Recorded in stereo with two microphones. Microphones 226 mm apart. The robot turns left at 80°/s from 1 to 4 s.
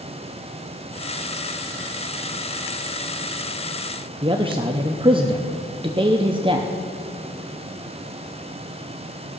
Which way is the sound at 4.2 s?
25° right (ahead or behind).